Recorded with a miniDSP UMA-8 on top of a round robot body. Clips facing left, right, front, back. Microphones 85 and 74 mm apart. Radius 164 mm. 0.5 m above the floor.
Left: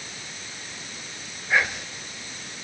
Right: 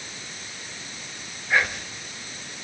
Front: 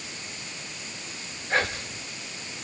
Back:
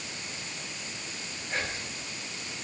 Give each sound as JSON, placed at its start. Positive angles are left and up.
{"t": 1.5, "sound": "whispering", "azimuth_deg": 0, "distance_m": 1.6}